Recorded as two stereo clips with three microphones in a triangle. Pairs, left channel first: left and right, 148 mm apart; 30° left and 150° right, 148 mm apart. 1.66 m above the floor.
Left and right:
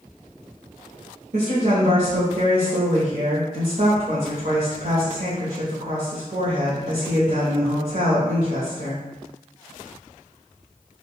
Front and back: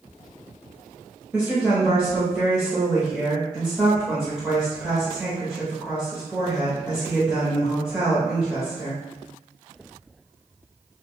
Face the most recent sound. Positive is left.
turn(degrees=-65)